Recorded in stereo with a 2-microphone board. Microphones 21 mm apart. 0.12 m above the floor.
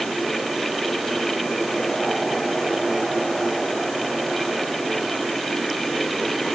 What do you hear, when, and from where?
Only background noise.